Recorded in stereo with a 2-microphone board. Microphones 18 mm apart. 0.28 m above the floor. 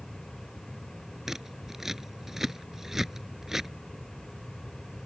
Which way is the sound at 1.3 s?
20° right (ahead or behind).